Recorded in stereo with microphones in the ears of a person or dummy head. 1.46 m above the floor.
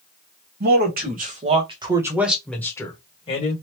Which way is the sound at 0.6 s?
55° right (ahead or behind).